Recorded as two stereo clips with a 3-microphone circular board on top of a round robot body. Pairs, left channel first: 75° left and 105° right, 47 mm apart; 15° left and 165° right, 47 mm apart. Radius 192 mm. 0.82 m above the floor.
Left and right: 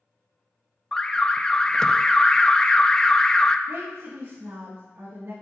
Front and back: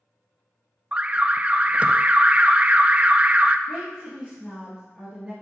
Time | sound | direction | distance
0.9 | an alarm | 145° left | 0.6 m
3.7 | a woman speaking | 85° right | 1.9 m